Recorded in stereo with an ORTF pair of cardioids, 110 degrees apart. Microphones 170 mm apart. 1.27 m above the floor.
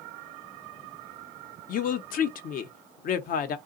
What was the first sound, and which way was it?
A woman speaking, 55° left.